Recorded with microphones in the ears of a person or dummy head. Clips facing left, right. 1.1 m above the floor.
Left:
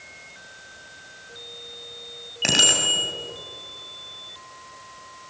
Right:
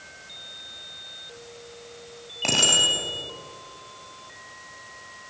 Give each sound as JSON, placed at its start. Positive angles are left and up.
{"t": 2.4, "sound": "a bicycle bell", "side_deg": 15, "distance_m": 6.5}